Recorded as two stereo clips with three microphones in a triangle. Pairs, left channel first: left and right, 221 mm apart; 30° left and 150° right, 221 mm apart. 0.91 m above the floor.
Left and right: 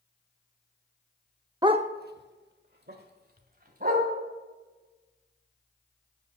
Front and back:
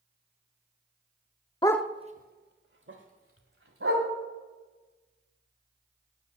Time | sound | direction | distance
1.6 | a dog barking | 30° right | 0.5 m